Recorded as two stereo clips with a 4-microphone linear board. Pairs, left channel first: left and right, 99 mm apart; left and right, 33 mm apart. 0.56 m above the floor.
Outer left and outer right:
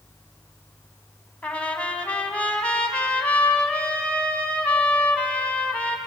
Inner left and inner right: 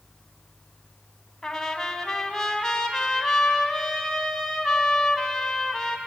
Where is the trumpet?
15° left (ahead or behind), 1.7 m.